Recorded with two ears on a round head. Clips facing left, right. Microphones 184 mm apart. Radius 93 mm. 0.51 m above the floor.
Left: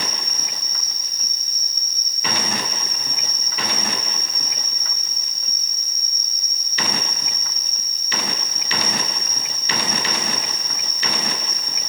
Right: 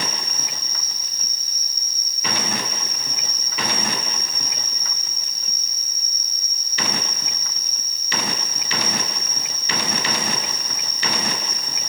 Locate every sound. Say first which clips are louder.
0.0 s an insect: right 1 dB; 5° right (ahead or behind), 5 m